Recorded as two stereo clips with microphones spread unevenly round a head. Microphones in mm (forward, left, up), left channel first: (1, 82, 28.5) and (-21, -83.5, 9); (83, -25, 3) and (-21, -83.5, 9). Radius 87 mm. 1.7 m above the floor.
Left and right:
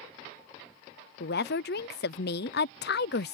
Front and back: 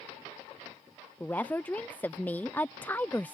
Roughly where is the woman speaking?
Left.